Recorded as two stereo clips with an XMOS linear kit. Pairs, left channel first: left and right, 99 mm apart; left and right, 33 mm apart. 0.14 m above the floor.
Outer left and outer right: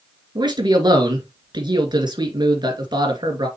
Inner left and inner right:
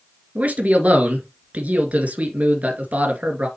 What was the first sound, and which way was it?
A man speaking, 50° right (ahead or behind).